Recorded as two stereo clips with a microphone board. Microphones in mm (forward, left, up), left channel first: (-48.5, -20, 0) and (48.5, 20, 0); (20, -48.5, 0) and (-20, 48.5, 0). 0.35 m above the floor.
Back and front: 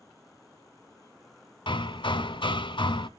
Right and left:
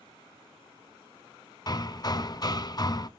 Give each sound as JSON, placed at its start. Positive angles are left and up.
{"t": 1.7, "sound": "hammering", "azimuth_deg": -120, "distance_m": 0.6}